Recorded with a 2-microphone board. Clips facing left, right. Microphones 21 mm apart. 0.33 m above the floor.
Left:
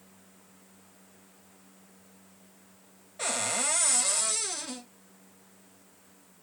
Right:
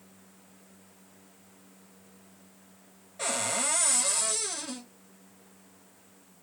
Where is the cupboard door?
10° left (ahead or behind), 0.6 m.